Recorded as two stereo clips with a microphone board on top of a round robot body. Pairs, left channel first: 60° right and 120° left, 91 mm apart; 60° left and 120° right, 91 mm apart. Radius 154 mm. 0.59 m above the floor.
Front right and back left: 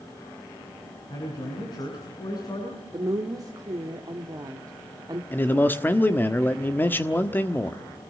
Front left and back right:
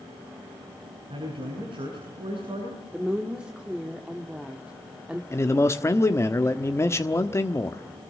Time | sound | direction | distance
1.1 | a man speaking | 100° right | 8 m
2.9 | a woman speaking | 160° left | 1.9 m
5.3 | a man speaking | 5° left | 1.5 m